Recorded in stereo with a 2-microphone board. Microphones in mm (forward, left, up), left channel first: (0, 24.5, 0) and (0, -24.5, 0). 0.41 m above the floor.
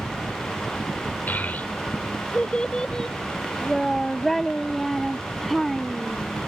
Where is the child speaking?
40° left (ahead or behind); by 6.2 s centre (ahead or behind).